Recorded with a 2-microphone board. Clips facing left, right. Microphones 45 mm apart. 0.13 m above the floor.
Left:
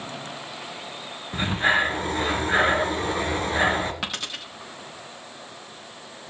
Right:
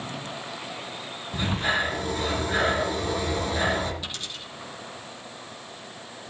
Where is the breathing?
35° left (ahead or behind), 2 m.